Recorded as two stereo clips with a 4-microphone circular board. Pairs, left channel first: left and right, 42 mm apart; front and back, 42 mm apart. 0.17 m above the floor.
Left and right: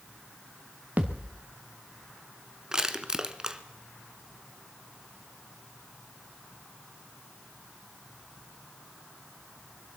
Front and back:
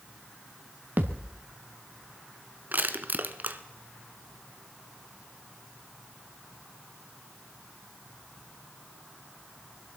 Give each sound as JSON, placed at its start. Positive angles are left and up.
{"t": 1.0, "sound": "a thud", "azimuth_deg": -140, "distance_m": 1.9}
{"t": 2.7, "sound": "crushing", "azimuth_deg": -160, "distance_m": 0.8}